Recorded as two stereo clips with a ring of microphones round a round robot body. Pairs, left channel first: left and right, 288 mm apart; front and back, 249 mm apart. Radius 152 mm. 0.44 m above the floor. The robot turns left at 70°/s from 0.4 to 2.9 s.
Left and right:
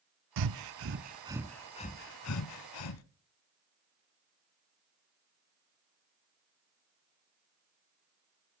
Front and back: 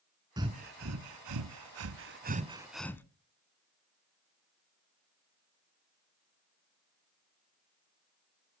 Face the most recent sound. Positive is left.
turn(degrees=80)